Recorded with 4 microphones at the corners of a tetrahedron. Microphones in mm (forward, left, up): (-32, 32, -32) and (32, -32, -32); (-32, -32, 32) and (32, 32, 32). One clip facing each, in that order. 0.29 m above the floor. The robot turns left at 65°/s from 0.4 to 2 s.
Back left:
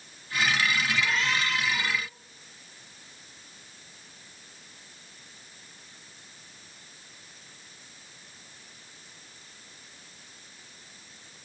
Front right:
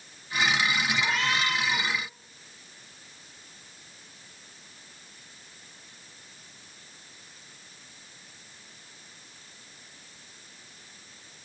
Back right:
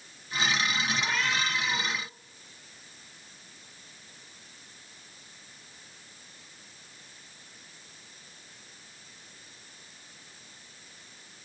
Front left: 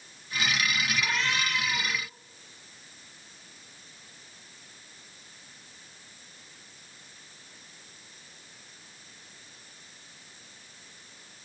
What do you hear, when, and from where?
1.0 s a cat meowing: 35° right, 1.2 m; by 1.9 s 95° right, 1.2 m